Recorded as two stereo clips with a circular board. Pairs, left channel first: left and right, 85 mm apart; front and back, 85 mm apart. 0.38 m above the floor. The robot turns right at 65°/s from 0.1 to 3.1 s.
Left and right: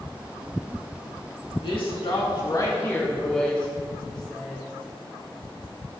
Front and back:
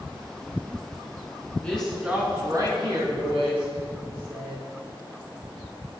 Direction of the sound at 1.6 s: 75° left.